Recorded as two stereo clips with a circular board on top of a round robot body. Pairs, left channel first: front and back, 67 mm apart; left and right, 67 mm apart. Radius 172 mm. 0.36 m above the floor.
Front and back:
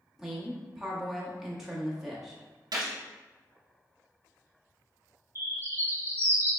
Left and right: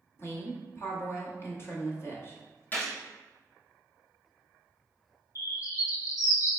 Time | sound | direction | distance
0.2 | a woman speaking | 100° left | 1.2 m
2.7 | a gunshot | 155° left | 0.5 m
5.3 | a bird | 125° left | 0.8 m